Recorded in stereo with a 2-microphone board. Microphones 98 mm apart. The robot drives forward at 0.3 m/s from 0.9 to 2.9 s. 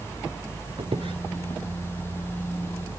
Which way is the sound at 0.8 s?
65° right (ahead or behind).